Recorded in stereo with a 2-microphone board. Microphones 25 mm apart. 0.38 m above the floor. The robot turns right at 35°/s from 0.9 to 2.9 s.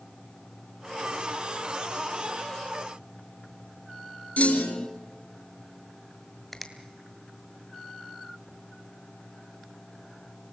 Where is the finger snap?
5° left (ahead or behind), 2 m.